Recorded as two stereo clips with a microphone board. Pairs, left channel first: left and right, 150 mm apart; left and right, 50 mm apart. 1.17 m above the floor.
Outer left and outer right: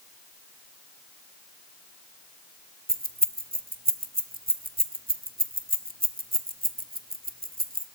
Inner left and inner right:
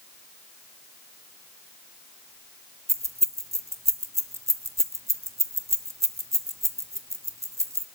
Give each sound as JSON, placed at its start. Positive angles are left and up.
{"t": 2.9, "sound": "keys jangling", "side_deg": -85, "distance_m": 1.3}